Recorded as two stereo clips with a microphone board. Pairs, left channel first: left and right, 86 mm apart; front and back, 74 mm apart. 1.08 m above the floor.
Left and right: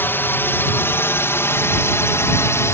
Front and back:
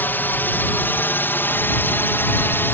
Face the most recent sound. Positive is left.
turn(degrees=45)